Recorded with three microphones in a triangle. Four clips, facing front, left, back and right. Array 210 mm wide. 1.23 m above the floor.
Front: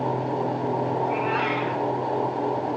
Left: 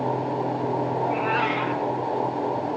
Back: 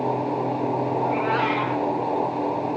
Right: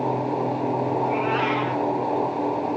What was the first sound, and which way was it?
A cat meowing, 155° right.